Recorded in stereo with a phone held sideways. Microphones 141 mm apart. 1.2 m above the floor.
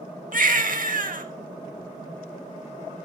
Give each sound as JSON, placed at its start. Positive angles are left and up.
{"t": 0.3, "sound": "a baby crying", "side_deg": -75, "distance_m": 1.4}